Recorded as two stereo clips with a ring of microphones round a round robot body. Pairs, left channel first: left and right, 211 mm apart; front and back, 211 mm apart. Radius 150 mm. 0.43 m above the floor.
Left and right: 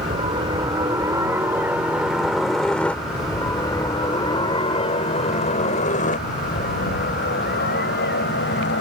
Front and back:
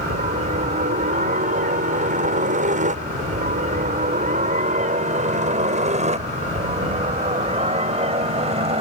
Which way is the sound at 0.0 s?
145° right.